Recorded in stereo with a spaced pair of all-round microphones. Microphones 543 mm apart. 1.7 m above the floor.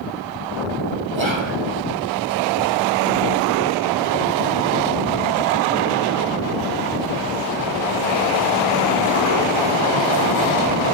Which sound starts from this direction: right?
Whispering, at 1.1 s.